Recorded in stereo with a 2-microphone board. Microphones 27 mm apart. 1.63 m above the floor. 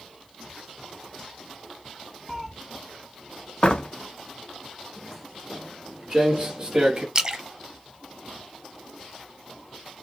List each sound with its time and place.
2.3 s a cat meowing: 5° left (ahead or behind), 0.9 m
3.6 s a door slam: 35° left (ahead or behind), 0.7 m
5.0 s footsteps: 5° left (ahead or behind), 1.8 m; by 7.0 s 35° right (ahead or behind), 2.0 m
7.2 s a splash: 30° right (ahead or behind), 1.1 m